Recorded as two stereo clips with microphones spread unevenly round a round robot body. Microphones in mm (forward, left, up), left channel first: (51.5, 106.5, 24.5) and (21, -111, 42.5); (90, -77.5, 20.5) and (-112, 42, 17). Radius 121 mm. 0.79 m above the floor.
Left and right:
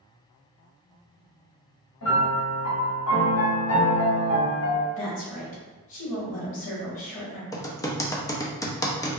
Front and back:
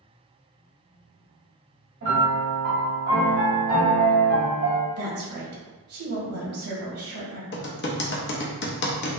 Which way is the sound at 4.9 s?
135° left.